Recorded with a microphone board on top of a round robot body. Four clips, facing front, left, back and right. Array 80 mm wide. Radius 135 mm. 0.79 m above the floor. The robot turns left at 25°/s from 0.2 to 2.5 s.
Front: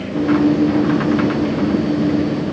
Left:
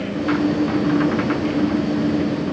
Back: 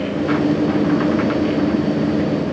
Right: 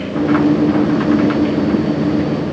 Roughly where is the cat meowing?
I don't hear a cat meowing.